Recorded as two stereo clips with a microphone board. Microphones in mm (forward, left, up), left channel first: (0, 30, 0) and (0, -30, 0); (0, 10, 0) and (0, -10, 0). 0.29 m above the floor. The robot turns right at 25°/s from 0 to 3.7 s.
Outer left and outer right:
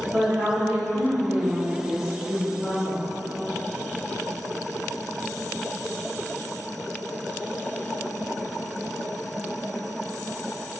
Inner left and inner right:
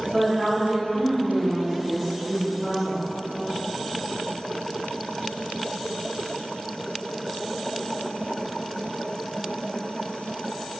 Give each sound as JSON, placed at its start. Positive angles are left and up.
{"t": 0.1, "sound": "a woman speaking", "azimuth_deg": -55, "distance_m": 1.2}